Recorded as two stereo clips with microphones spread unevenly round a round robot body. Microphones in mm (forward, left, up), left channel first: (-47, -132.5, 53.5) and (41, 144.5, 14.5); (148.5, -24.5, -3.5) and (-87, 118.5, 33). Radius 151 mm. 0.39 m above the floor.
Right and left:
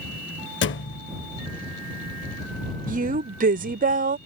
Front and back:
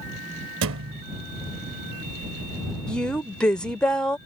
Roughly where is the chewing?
I don't hear chewing.